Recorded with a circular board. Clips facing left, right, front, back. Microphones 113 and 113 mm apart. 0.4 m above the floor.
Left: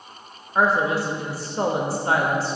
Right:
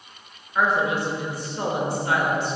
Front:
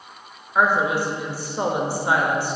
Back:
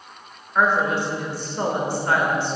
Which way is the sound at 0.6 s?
70° left.